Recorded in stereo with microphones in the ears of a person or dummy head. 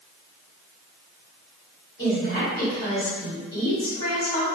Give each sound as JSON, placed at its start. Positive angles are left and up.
{"t": 2.0, "sound": "a woman speaking", "side_deg": 35, "distance_m": 1.9}